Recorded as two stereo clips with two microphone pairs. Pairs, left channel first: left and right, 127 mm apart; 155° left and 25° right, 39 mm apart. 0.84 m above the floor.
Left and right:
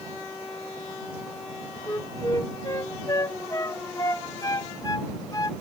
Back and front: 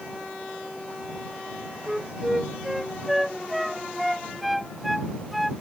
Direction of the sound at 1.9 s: 60° left.